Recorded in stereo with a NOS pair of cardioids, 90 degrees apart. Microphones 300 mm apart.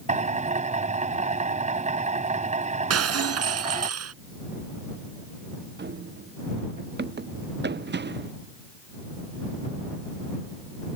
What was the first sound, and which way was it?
A drill, 25° right.